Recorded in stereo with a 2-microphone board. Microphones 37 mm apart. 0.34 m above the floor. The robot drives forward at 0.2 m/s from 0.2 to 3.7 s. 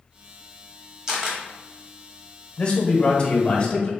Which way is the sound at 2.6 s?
30° left (ahead or behind).